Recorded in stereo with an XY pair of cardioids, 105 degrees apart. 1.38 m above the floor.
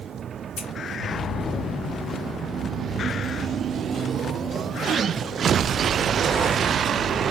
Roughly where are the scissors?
Ahead left.